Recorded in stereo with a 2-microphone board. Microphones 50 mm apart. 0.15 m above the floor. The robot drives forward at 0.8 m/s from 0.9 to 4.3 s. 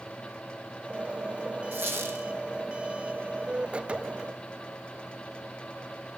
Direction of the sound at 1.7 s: 45° right (ahead or behind).